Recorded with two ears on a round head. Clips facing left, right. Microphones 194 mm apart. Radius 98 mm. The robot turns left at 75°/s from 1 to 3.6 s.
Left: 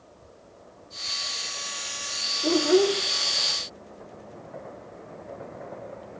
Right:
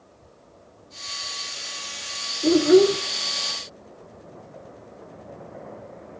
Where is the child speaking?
70° right, 0.6 m; by 3.0 s 115° right, 0.6 m.